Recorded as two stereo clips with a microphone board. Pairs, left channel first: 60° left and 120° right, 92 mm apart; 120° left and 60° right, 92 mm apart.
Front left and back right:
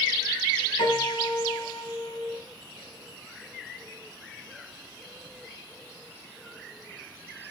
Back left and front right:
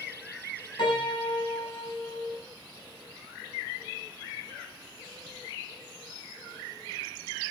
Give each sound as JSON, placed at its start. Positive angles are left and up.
{"t": 0.8, "sound": "a piano", "azimuth_deg": 95, "distance_m": 5.5}